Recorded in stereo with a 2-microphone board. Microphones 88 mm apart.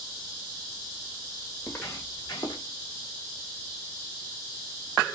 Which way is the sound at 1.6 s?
20° left (ahead or behind).